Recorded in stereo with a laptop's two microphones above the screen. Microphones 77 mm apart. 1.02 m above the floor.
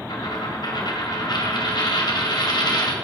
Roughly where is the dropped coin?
Left.